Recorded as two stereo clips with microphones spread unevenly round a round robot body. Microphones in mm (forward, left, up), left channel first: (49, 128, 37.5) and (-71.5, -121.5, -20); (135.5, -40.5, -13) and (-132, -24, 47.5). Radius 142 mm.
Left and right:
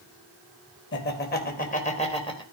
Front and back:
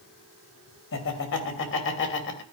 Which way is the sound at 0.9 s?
10° left.